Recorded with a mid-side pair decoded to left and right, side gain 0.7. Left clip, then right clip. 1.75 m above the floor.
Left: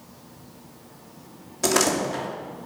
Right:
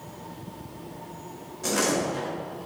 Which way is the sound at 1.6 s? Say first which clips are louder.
Left 3 dB; 55° left.